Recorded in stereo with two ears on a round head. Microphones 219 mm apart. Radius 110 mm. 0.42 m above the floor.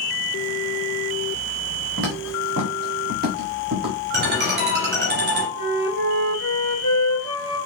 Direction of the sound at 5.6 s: 45° right (ahead or behind).